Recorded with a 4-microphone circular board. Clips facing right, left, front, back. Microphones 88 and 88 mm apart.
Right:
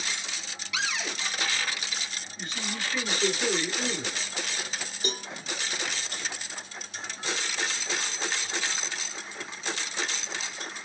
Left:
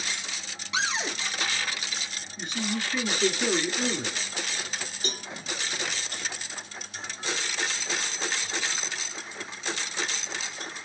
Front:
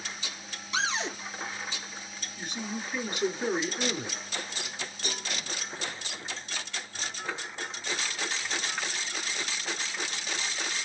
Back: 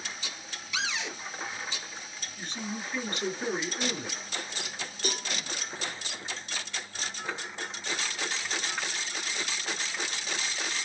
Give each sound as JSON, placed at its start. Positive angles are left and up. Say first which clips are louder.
{"t": 0.7, "sound": "a cupboard door", "louder": "left 3 dB, front 4 dB", "azimuth_deg": 40, "distance_m": 0.5}
{"t": 2.4, "sound": "a man speaking", "louder": "left 5 dB, front 1 dB", "azimuth_deg": 50, "distance_m": 1.2}
{"t": 5.0, "sound": "a cowbell", "louder": "right 4 dB, back 5 dB", "azimuth_deg": -165, "distance_m": 3.0}